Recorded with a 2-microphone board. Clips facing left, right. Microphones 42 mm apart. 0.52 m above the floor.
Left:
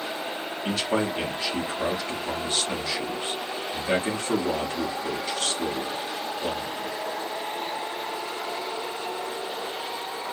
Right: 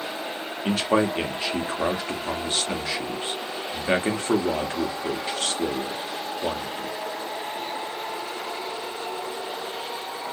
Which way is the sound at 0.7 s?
35° right (ahead or behind).